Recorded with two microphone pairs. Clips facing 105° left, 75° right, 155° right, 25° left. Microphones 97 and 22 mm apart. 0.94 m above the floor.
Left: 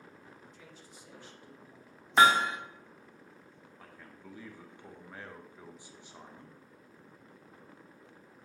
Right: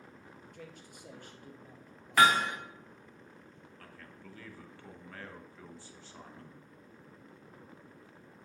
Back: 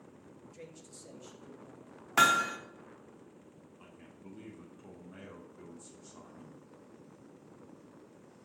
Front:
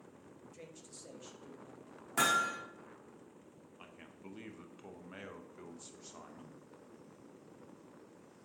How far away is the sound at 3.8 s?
About 0.9 m.